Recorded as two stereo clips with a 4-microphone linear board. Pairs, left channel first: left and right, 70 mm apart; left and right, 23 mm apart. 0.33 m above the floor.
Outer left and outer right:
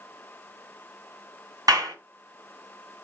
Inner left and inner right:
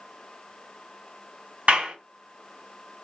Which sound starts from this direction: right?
A clap, at 1.7 s.